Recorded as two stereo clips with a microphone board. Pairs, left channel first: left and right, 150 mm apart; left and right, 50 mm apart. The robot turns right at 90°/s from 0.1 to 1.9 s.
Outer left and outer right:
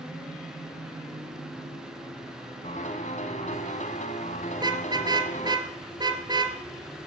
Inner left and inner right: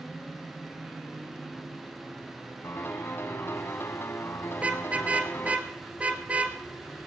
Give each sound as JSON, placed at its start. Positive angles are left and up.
{"t": 2.6, "sound": "a piano", "side_deg": 55, "distance_m": 2.0}
{"t": 4.6, "sound": "a car horn", "side_deg": -30, "distance_m": 3.5}